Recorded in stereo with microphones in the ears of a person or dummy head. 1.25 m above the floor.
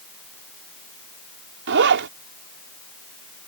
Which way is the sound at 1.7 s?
60° right (ahead or behind).